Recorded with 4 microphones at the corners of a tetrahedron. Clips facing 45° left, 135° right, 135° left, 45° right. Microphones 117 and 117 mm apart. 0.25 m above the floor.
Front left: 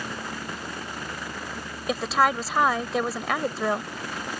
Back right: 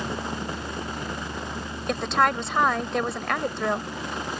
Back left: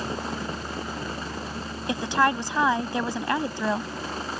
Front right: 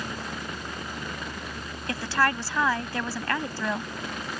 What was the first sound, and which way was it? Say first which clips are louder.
A woman speaking: even, back left 3 dB; 125° left.